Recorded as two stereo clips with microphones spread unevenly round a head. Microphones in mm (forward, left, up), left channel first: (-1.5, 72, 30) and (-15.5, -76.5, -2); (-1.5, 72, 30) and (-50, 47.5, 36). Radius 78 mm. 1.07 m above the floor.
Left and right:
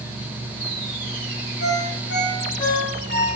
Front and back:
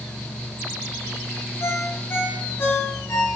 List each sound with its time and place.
1.6 s a ringtone: 65° left, 4 m